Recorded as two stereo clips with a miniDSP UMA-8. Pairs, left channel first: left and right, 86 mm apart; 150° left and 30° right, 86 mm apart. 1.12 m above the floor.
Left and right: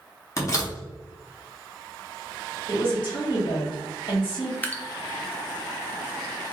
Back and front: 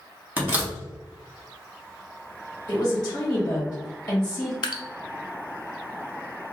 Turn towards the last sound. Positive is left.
turn(degrees=155)